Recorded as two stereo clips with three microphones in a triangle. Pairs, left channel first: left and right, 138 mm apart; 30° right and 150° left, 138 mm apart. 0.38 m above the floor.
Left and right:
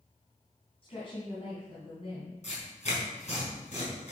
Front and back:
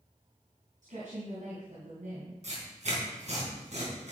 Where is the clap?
I don't hear a clap.